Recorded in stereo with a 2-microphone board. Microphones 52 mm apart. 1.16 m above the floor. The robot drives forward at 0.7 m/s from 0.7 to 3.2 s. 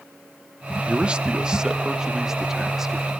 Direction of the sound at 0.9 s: 20° right (ahead or behind).